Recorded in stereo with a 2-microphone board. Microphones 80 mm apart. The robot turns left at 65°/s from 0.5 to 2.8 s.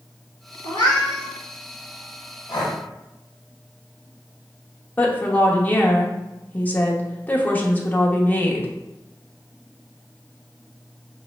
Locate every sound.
0.6 s a cat meowing: 80° left, 1.5 m; by 1.3 s 40° left, 1.5 m
2.5 s breathing: 70° left (ahead or behind), 1.2 m; by 2.8 s 55° left (ahead or behind), 1.2 m
5.0 s a woman speaking: 25° left (ahead or behind), 0.8 m